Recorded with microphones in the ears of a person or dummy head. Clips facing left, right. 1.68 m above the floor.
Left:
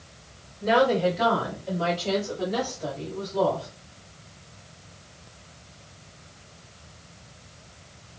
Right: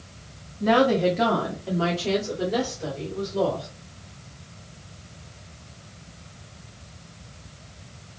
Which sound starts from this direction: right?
A woman speaking, at 0.6 s.